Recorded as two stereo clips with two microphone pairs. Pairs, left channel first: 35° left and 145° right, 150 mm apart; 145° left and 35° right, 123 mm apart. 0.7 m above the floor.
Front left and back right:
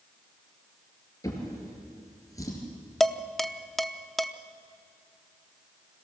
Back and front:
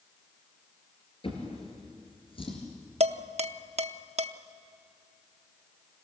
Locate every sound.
1.2 s a drawer: 105° left, 3.5 m
3.0 s dishes clattering: 55° right, 0.6 m